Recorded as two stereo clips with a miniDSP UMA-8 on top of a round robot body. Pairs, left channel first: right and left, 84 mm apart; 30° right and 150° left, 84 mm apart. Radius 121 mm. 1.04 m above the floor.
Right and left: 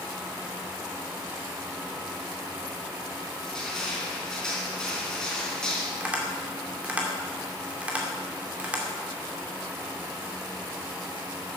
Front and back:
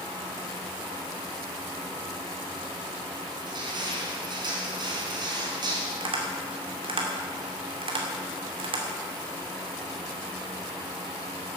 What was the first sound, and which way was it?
Crushing, 175° right.